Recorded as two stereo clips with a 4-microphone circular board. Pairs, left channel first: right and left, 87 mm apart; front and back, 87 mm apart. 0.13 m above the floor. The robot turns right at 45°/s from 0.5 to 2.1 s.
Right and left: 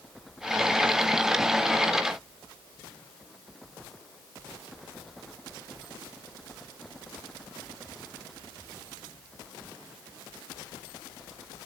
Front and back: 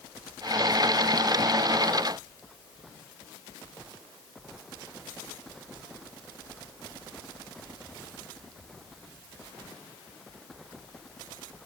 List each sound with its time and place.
Only background noise.